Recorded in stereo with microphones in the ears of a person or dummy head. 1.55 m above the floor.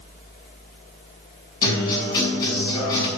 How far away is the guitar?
About 5.5 m.